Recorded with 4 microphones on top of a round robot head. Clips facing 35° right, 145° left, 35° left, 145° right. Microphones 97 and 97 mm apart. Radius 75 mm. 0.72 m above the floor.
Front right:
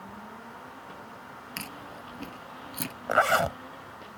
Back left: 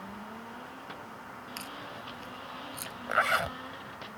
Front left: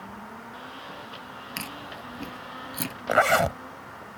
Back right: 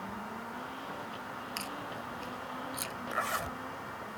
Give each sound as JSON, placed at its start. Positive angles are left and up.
{"t": 1.6, "sound": "chewing", "azimuth_deg": 0}
{"t": 3.1, "sound": "a zipper", "azimuth_deg": 20}